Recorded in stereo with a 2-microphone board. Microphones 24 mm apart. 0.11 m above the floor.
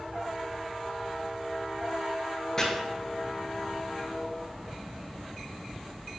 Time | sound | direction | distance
2.6 | chopping | 20° left (ahead or behind) | 0.9 m